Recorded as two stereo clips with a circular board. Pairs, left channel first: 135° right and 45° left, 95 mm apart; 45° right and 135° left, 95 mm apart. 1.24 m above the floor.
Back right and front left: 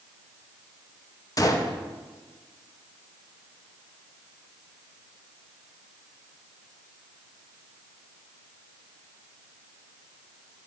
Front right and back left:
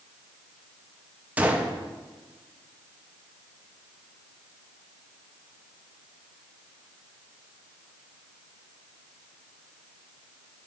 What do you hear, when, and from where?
1.4 s a gunshot: 155° right, 0.6 m